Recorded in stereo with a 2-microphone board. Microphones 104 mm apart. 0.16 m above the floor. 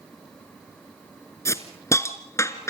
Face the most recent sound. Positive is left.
turn(degrees=25)  # may be behind; listen again after turning